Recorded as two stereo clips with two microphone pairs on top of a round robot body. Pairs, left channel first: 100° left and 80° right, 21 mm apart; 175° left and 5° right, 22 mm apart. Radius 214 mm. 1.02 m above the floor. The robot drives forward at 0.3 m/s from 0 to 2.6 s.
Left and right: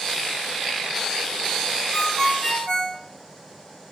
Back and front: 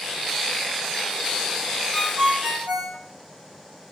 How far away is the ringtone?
About 0.6 m.